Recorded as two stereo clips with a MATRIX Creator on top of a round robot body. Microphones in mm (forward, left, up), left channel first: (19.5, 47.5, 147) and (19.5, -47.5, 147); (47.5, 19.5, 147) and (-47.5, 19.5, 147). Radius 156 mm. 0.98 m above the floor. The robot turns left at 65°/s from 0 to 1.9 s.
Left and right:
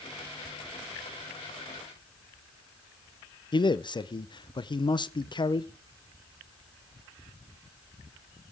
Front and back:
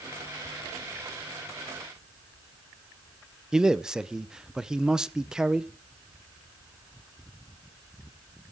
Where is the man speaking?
100° left, 0.8 m.